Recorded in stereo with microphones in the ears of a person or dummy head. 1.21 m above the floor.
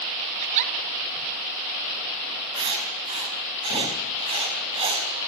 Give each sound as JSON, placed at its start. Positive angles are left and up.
{"t": 0.4, "sound": "a giggle", "side_deg": -35, "distance_m": 2.0}
{"t": 2.5, "sound": "writing", "side_deg": -25, "distance_m": 5.0}